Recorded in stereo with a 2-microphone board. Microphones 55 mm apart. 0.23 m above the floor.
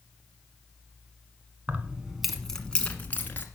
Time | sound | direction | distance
1.7 | keys jangling | 25° right (ahead or behind) | 1.4 m